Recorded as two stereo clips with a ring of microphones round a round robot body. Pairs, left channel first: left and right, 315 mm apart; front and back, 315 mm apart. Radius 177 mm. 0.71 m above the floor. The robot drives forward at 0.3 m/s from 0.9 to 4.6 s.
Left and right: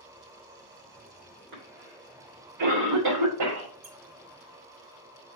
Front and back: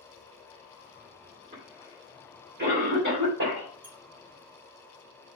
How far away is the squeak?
About 4 m.